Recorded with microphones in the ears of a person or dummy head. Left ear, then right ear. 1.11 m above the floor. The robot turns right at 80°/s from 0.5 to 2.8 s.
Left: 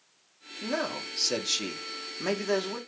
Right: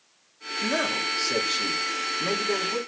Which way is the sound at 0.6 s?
10° right.